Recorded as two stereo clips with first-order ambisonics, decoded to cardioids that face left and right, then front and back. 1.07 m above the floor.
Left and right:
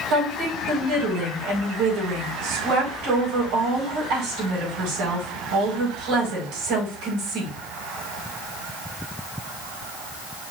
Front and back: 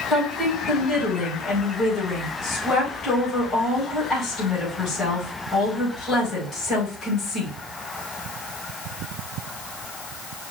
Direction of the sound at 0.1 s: 65° right.